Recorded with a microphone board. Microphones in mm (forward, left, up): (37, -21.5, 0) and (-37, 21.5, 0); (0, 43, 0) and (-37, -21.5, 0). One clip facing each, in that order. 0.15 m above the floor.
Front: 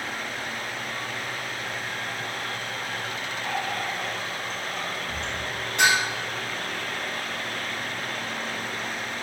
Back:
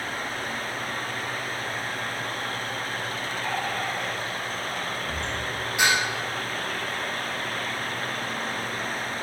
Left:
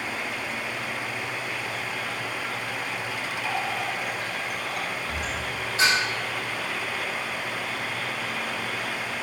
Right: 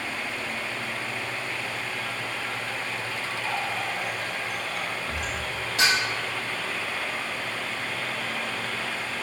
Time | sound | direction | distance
3.4 | a running tap | 175° left | 2.5 m
5.8 | dishes clattering | 125° right | 3 m